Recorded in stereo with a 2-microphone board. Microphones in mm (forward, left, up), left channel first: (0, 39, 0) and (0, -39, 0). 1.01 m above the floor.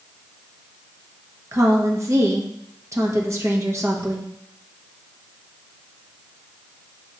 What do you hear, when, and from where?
1.5 s a woman speaking: 40° right (ahead or behind), 0.9 m